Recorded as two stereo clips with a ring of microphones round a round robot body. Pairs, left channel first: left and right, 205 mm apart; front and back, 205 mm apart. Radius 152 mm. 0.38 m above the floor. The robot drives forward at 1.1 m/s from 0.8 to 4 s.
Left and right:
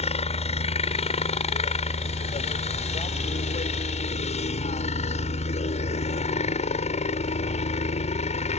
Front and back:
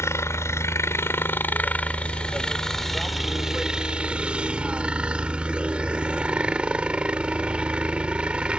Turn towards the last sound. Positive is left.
turn(degrees=100)